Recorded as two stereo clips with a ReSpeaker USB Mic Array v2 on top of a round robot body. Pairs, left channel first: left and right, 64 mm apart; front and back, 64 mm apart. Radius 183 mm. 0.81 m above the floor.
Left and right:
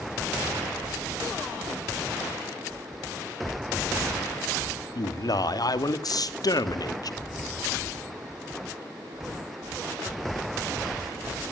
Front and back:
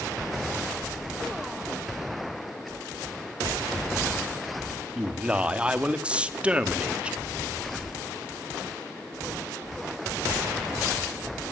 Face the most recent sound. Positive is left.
turn(degrees=105)